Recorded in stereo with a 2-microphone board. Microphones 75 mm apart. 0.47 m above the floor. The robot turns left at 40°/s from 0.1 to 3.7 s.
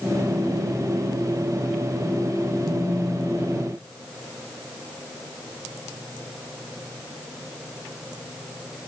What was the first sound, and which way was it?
A phone buzzing, straight ahead.